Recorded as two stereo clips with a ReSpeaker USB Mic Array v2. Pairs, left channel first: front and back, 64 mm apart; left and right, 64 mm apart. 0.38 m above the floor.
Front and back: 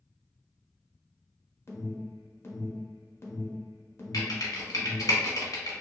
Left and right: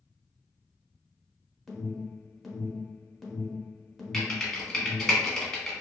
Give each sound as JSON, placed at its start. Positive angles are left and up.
{"t": 1.7, "sound": "an alarm", "azimuth_deg": 5, "distance_m": 0.8}
{"t": 4.1, "sound": "typing on a keyboard", "azimuth_deg": 10, "distance_m": 1.0}